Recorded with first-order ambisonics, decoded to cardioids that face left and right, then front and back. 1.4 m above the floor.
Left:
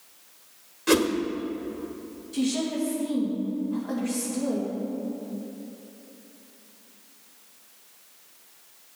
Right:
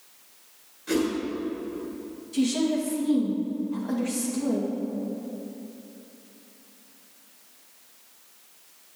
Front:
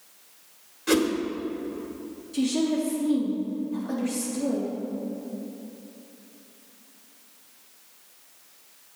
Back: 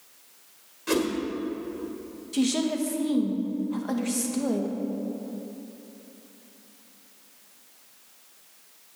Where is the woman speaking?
Straight behind, 2 m.